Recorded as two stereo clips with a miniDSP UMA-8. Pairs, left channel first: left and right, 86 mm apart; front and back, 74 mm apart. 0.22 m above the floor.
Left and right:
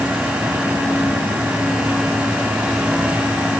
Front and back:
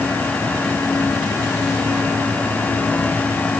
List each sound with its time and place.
Only background noise.